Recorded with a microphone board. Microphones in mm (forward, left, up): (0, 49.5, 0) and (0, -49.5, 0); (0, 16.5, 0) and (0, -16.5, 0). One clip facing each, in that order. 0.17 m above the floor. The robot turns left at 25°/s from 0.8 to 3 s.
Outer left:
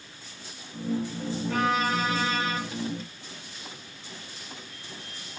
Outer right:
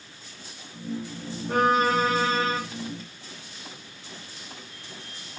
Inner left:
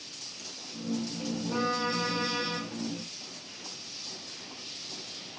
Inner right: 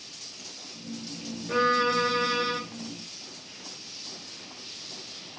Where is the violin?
55° right (ahead or behind), 1.9 m; by 2.6 s 35° right (ahead or behind), 1.9 m.